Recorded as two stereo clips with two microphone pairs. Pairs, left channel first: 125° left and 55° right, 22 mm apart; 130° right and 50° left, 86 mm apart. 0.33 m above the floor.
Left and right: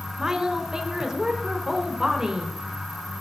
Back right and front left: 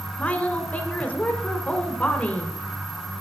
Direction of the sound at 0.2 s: 75° right.